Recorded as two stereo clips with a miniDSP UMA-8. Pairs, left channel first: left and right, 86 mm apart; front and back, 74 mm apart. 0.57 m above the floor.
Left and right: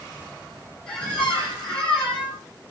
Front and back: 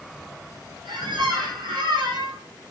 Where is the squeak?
170° left, 8 m.